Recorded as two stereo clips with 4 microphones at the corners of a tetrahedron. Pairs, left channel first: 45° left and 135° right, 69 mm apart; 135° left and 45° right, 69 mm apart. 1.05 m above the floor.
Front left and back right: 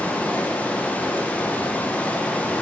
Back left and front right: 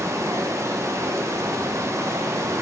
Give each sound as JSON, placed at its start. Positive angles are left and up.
{"t": 0.0, "sound": "running water", "azimuth_deg": -20, "distance_m": 0.7}